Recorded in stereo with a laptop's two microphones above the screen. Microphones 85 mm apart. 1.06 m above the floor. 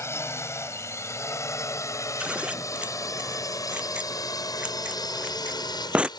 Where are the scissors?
15° right (ahead or behind).